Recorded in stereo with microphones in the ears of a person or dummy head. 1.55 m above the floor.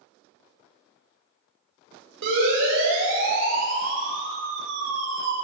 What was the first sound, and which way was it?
A siren, 70° right (ahead or behind).